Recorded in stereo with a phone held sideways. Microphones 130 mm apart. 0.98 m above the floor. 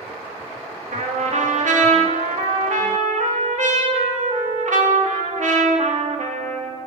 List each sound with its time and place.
0.9 s a trumpet: 70° right (ahead or behind), 1.5 m